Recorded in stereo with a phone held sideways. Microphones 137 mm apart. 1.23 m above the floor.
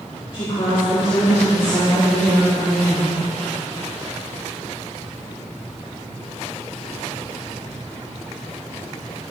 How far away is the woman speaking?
About 3 m.